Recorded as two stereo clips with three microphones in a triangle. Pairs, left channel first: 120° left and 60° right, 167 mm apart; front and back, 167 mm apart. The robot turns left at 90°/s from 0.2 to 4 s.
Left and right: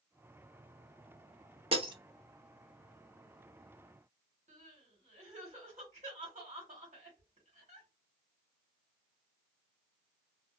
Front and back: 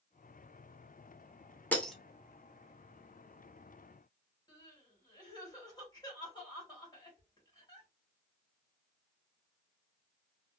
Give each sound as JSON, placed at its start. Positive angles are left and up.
{"t": 1.7, "sound": "breaking glass", "azimuth_deg": -70, "distance_m": 0.5}
{"t": 4.5, "sound": "crying", "azimuth_deg": -55, "distance_m": 1.4}